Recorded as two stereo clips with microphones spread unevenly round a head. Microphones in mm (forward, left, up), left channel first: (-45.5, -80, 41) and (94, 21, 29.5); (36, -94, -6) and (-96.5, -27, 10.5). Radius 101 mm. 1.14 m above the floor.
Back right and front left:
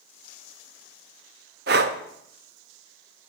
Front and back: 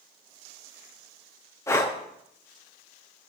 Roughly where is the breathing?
Ahead left.